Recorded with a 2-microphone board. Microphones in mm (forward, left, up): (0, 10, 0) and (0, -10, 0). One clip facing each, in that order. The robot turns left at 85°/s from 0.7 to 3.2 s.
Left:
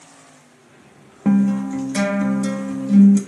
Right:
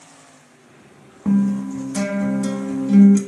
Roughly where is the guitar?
Behind left.